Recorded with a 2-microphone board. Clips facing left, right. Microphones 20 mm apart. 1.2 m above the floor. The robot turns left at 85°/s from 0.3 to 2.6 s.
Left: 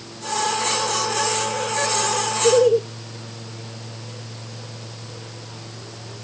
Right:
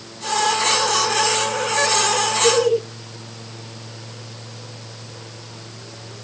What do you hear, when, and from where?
2.4 s laughter: 40° right (ahead or behind), 0.9 m; by 2.8 s 55° right (ahead or behind), 0.9 m